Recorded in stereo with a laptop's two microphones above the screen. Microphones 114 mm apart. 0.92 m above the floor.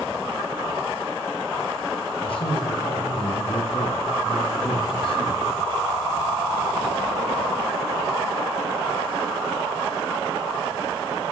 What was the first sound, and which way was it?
A man speaking, 65° left (ahead or behind).